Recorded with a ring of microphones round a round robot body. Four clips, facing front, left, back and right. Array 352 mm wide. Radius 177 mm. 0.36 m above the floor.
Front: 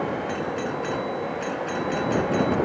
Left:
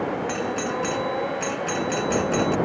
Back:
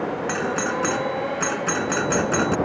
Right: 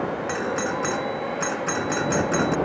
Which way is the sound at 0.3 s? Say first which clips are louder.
Right 1 dB, back 3 dB; 160° right.